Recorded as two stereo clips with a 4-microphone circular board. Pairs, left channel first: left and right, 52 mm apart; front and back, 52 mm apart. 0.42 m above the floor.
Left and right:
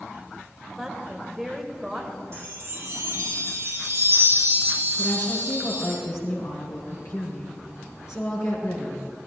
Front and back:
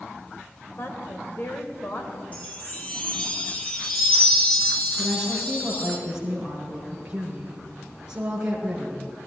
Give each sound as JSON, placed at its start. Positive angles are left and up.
{"t": 0.8, "sound": "a woman speaking", "azimuth_deg": -5, "distance_m": 1.4}
{"t": 2.3, "sound": "a chime", "azimuth_deg": -55, "distance_m": 3.5}
{"t": 5.0, "sound": "a woman speaking", "azimuth_deg": 110, "distance_m": 5.0}